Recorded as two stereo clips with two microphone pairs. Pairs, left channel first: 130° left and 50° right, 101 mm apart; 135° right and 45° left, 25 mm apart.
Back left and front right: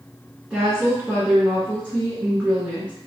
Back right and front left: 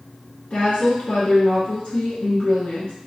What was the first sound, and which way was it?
A woman speaking, 130° right.